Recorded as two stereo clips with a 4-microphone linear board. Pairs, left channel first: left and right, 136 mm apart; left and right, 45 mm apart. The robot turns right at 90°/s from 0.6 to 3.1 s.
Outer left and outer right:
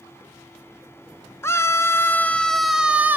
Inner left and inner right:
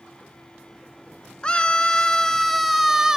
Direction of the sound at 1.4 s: 20° left (ahead or behind).